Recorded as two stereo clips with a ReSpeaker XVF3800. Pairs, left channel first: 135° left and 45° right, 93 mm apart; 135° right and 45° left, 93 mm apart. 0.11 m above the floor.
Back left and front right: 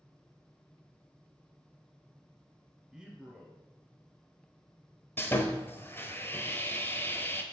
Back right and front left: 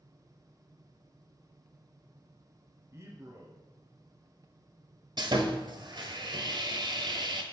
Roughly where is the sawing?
Left.